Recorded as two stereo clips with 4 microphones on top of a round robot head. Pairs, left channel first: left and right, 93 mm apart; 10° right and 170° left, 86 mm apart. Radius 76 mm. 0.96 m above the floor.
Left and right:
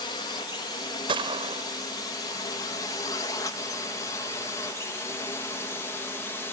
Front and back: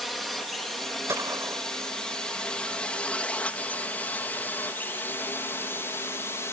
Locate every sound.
0.0 s a drone: 80° left; by 6.5 s 35° left
1.1 s a gunshot: 120° right